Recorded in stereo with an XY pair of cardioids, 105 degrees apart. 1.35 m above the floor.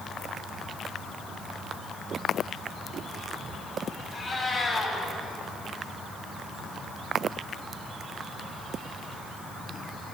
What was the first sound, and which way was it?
A cat meowing, 40° left.